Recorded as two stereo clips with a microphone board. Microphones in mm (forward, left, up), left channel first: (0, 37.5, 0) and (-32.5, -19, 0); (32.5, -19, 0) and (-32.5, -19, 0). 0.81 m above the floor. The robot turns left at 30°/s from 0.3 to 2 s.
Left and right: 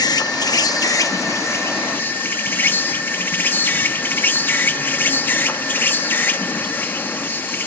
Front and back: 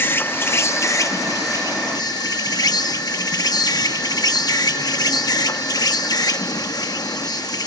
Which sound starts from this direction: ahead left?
An insect, at 0.0 s.